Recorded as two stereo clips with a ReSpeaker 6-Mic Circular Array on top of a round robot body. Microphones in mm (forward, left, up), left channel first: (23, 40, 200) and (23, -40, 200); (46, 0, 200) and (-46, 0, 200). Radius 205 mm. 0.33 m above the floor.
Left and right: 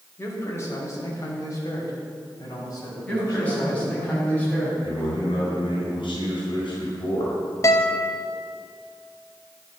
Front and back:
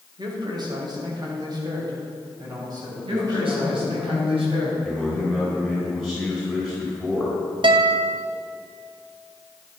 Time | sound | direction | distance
0.2 | a man speaking | 145° left | 3.5 m
3.0 | a man speaking | 160° left | 5 m
4.8 | a man speaking | 105° left | 4.5 m
7.6 | a guitar | 145° left | 0.7 m